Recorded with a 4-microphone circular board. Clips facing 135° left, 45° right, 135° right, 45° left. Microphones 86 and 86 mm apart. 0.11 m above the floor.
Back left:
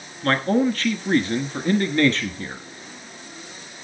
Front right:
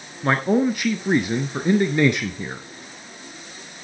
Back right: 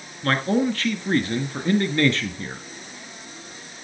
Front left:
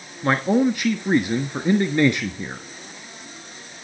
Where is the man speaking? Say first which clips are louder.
Front right 1 dB, front left 3 dB; 5° left, 1.2 m.